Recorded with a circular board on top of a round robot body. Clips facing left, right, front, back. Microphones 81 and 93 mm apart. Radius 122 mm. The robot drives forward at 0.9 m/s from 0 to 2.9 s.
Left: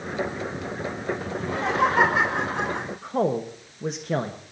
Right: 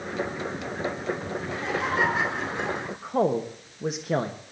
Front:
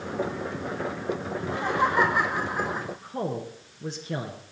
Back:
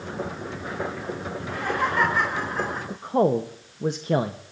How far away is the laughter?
About 4 m.